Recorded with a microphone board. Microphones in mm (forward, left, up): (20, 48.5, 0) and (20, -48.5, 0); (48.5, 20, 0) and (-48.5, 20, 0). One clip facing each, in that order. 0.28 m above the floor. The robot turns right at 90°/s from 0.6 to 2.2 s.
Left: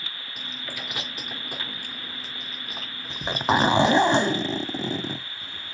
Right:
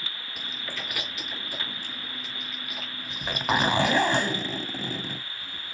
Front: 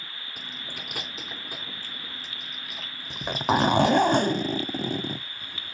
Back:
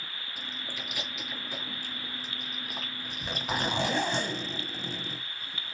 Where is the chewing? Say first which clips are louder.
Even, even; straight ahead, 3 m; by 4.0 s 140° left, 3 m.